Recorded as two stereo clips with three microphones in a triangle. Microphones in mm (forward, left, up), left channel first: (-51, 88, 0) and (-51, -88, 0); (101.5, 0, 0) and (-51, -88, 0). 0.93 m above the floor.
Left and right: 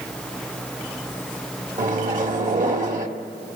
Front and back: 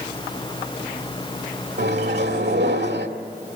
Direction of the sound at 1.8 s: 135° right.